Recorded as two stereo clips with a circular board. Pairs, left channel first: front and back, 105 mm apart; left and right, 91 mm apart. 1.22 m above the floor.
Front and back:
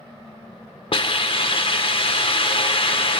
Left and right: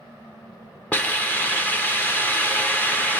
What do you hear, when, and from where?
0.9 s a hiss: 20° left, 1.1 m